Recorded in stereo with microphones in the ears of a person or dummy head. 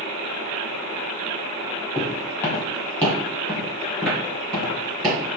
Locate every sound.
1.9 s footsteps: 15° left (ahead or behind), 2 m; by 5.4 s centre (ahead or behind), 3.5 m